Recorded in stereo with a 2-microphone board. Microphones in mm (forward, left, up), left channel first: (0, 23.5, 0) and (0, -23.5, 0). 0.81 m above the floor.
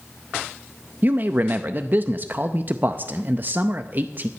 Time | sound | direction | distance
1.0 | a man speaking | 45° right (ahead or behind) | 0.5 m